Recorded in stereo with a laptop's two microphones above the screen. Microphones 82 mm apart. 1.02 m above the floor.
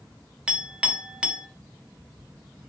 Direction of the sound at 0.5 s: 10° right (ahead or behind).